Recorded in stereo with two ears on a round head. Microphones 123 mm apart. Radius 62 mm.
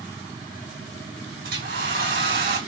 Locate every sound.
1.4 s a hair dryer: 75° right (ahead or behind), 4.5 m